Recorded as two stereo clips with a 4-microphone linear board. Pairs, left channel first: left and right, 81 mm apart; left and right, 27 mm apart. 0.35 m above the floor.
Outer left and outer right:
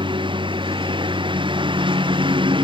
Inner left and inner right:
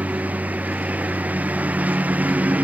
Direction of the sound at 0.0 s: 90° right.